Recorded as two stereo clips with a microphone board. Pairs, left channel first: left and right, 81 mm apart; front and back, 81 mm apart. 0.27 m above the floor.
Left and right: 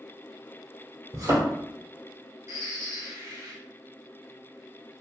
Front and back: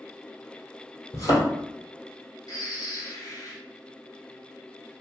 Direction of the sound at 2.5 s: 40° right.